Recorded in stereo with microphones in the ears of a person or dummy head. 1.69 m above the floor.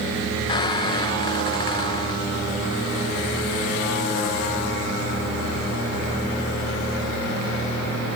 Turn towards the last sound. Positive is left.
turn(degrees=25)  # may be behind; listen again after turning